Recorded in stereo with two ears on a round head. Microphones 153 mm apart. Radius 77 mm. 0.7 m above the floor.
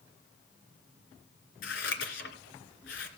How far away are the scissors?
About 2.5 m.